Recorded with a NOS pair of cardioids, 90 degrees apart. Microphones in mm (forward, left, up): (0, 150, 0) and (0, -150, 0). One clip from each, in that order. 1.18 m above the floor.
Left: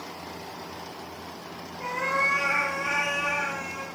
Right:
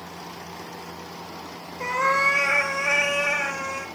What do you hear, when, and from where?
1.8 s a cat meowing: 55° right, 1.4 m